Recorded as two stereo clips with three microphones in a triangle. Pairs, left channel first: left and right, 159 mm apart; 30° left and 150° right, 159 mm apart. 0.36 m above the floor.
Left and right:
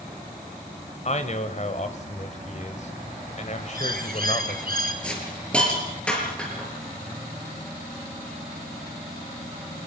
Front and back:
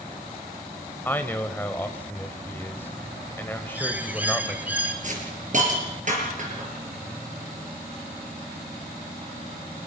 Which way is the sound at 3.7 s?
70° right.